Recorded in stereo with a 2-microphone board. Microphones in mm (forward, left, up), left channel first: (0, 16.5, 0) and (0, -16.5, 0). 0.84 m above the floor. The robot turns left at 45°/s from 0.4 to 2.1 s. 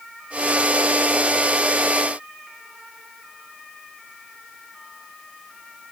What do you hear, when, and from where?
Only background noise.